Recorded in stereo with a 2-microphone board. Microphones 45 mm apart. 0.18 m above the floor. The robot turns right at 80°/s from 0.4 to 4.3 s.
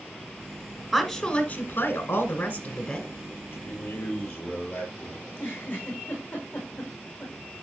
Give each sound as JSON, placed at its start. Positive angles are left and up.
{"t": 0.9, "sound": "a woman speaking", "azimuth_deg": 10, "distance_m": 1.5}
{"t": 3.5, "sound": "a man speaking", "azimuth_deg": 75, "distance_m": 5.0}
{"t": 5.2, "sound": "a giggle", "side_deg": 45, "distance_m": 4.5}